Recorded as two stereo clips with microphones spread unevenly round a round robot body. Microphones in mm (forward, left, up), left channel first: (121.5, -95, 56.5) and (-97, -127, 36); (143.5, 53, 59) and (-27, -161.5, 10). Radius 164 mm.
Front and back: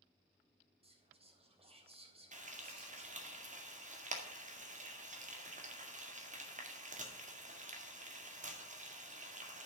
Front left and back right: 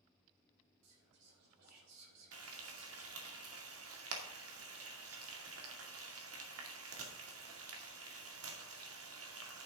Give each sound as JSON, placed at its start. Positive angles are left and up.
{"t": 0.8, "sound": "whispering", "azimuth_deg": -110, "distance_m": 4.0}
{"t": 2.3, "sound": "frying", "azimuth_deg": -125, "distance_m": 2.0}